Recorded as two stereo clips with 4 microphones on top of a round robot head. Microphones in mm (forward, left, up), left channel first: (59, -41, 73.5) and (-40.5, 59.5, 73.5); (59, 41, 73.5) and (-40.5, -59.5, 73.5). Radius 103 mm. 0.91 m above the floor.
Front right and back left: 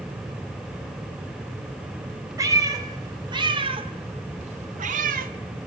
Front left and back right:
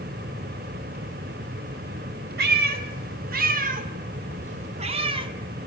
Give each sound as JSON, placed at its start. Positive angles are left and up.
{"t": 2.4, "sound": "a cat meowing", "azimuth_deg": -155, "distance_m": 2.5}